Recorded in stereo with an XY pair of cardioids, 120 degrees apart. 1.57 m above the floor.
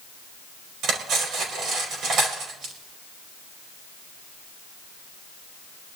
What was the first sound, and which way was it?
Cutlery clinking, 70° right.